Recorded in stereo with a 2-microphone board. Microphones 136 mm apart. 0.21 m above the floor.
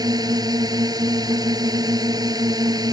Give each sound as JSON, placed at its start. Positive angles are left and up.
{"t": 0.0, "sound": "a drone", "side_deg": -30}